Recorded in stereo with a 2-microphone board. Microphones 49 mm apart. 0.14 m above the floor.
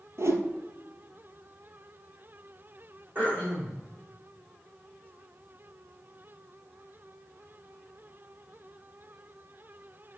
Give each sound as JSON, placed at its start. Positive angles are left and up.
{"t": 0.2, "sound": "a whoosh", "side_deg": -75, "distance_m": 1.2}
{"t": 3.1, "sound": "throat clearing", "side_deg": -40, "distance_m": 4.5}